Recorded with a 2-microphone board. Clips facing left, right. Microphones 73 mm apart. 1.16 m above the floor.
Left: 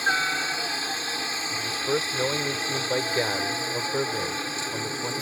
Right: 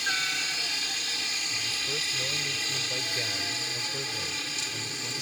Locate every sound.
0.0 s a helicopter: 40° left (ahead or behind)
1.5 s a man speaking: 65° left (ahead or behind)